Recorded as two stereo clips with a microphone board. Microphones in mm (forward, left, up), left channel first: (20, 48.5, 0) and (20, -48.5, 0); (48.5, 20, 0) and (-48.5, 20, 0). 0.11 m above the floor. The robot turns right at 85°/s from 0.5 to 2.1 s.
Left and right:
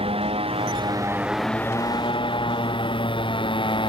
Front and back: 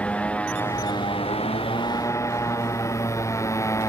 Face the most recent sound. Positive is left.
turn(degrees=60)